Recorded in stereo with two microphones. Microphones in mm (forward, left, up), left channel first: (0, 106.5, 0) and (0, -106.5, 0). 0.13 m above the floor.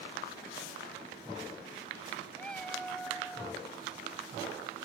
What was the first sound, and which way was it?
A cat meowing, 5° left (ahead or behind).